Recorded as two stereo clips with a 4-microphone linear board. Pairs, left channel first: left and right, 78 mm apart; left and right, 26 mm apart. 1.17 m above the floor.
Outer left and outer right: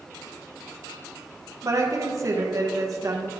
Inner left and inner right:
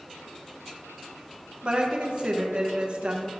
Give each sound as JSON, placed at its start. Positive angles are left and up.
{"t": 1.6, "sound": "a woman speaking", "side_deg": -40, "distance_m": 0.8}